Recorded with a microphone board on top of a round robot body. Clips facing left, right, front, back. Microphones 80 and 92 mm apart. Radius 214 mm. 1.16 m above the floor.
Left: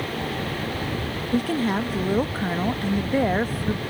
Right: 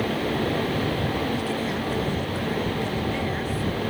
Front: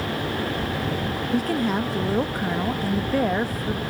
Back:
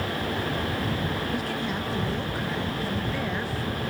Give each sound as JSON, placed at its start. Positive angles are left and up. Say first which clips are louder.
{"t": 1.3, "sound": "a woman speaking", "louder": "left 4 dB, front 6 dB", "azimuth_deg": 50}